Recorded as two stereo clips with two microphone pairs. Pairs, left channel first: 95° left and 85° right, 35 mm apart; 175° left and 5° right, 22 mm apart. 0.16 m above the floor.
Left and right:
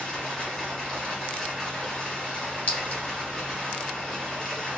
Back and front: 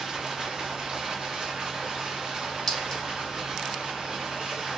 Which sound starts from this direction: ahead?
Running water, at 0.0 s.